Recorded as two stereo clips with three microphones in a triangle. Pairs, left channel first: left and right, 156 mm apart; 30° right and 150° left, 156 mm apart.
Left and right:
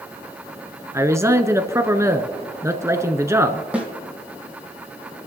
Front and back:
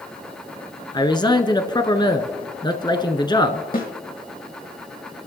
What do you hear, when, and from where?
0.9 s a man speaking: 40° right, 1.1 m
3.7 s a snare drum: 10° right, 3 m